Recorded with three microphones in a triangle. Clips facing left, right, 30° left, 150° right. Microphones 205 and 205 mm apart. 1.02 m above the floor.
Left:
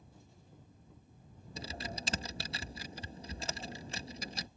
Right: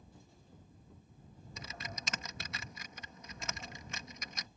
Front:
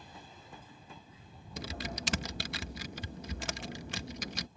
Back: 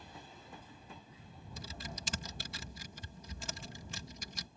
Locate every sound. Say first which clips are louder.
1.6 s typing on a keyboard: left 6 dB, front 8 dB; 35° left